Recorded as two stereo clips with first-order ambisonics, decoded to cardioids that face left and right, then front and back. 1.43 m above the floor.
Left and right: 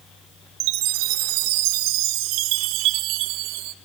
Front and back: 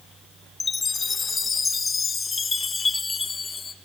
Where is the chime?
75° right, 0.9 m.